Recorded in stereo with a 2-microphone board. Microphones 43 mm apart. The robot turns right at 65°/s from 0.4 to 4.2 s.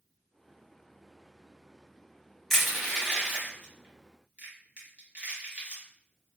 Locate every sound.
2.5 s crushing: 10° left (ahead or behind), 1.3 m; by 5.8 s 30° right (ahead or behind), 1.3 m